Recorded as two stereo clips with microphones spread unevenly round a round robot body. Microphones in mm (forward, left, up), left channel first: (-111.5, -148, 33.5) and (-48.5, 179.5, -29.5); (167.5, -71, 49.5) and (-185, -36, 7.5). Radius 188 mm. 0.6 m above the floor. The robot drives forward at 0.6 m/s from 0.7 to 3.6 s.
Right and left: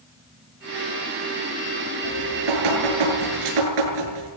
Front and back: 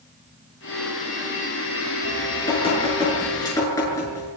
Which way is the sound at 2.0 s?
70° left.